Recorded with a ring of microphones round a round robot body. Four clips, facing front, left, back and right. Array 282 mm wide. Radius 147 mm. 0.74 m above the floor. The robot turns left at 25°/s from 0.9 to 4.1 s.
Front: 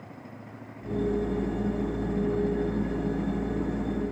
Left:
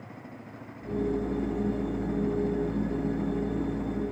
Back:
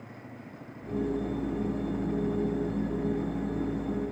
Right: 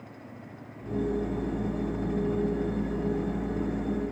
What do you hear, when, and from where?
Only background noise.